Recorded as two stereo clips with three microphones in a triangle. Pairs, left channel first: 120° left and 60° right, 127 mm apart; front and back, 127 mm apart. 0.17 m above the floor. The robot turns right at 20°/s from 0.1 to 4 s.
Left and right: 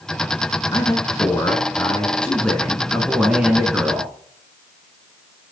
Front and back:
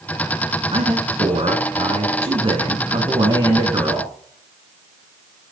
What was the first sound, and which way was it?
A man speaking, 165° left.